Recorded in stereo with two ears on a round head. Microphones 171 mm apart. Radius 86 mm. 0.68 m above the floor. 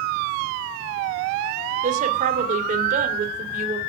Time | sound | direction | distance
1.8 | a woman speaking | 40° right (ahead or behind) | 2 m